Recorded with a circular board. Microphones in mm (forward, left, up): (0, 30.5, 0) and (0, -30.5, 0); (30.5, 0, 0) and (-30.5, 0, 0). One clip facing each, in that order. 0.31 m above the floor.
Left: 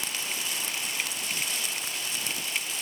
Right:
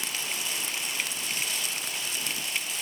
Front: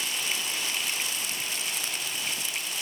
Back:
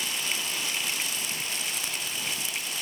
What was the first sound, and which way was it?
Only background noise.